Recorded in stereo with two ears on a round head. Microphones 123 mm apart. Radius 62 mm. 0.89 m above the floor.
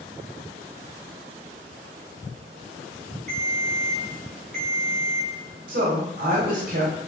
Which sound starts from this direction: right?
A woman speaking, at 5.7 s.